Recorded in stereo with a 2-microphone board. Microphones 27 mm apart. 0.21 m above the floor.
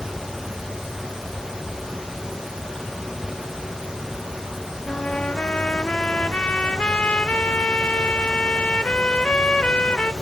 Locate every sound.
4.9 s a trumpet: 50° left (ahead or behind), 0.6 m